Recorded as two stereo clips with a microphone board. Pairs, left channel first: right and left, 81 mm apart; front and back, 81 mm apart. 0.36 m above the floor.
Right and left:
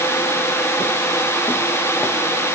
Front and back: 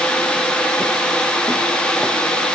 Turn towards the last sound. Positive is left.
No sound to turn to.